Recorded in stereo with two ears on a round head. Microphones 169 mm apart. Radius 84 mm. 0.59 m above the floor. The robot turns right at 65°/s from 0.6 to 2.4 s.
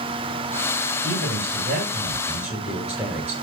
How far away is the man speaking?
About 8 m.